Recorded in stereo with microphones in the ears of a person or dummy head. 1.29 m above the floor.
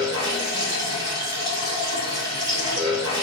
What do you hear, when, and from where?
0.0 s running water: 30° right (ahead or behind), 1.7 m